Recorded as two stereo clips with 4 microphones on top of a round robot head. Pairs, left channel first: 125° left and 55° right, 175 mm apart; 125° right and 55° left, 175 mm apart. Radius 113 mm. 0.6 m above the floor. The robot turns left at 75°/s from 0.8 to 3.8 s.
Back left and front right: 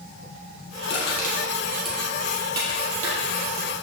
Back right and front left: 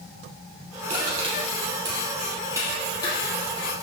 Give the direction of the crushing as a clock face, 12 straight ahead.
8 o'clock.